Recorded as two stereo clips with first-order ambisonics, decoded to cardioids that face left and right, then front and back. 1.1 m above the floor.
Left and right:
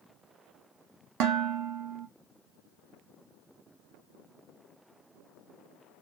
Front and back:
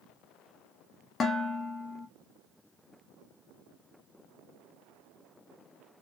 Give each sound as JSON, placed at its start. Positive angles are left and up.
{"t": 1.2, "sound": "dishes clattering", "azimuth_deg": -75, "distance_m": 0.6}